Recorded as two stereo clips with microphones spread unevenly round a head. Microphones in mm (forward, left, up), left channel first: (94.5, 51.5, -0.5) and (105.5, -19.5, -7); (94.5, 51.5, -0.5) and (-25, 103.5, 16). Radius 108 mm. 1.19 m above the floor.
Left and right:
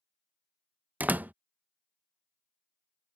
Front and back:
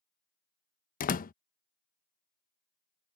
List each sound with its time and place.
1.0 s a door slam: 10° right